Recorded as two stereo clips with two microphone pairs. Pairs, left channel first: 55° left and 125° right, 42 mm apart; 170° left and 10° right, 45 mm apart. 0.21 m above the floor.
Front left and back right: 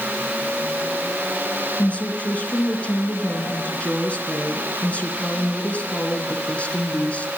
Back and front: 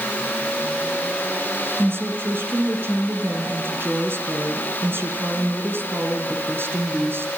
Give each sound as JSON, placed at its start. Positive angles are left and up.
{"t": 1.8, "sound": "a woman speaking", "azimuth_deg": 0, "distance_m": 3.0}